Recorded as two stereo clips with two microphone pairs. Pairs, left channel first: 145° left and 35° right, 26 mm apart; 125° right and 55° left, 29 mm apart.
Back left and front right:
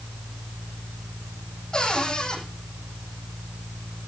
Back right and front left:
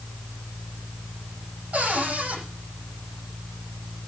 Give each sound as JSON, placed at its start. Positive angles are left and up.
{"t": 1.7, "sound": "a cupboard door", "azimuth_deg": 80, "distance_m": 8.5}